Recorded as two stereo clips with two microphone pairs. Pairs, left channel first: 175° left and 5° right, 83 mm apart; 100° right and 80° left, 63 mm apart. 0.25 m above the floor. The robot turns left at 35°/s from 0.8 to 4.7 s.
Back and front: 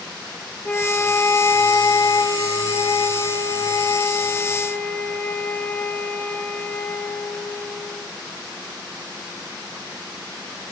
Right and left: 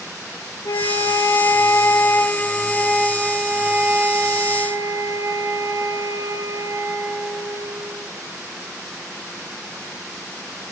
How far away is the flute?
About 0.9 m.